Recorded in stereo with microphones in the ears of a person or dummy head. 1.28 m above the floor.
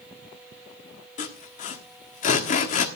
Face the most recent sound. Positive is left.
turn(degrees=40)  # may be behind; listen again after turning